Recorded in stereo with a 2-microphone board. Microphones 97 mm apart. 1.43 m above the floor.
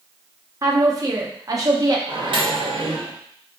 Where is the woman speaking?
40° right (ahead or behind), 0.7 m.